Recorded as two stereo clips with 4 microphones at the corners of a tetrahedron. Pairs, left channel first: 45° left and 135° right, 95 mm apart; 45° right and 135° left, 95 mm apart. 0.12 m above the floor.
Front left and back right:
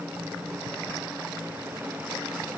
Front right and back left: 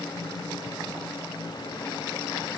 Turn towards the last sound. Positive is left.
No sound to turn to.